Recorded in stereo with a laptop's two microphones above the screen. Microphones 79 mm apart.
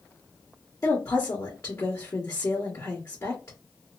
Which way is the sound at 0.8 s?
40° left (ahead or behind).